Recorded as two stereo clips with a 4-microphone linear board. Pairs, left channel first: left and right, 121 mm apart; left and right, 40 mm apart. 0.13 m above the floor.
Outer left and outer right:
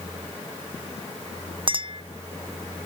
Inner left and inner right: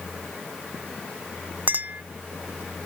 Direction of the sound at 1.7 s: 45° right (ahead or behind).